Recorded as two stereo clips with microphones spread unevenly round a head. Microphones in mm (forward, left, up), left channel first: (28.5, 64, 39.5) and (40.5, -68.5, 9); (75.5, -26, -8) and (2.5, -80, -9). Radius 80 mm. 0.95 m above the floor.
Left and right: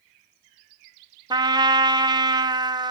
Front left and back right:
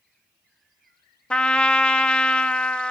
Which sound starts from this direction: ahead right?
A trumpet, at 1.3 s.